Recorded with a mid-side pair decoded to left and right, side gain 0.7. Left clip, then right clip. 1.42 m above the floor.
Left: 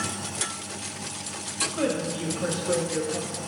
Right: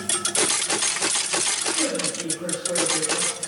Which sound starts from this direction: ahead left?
A woman speaking, at 1.7 s.